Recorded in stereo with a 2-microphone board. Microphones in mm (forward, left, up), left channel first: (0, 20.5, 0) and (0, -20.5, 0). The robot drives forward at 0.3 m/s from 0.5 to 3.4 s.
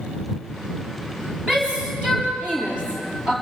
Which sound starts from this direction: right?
A shout, at 1.5 s.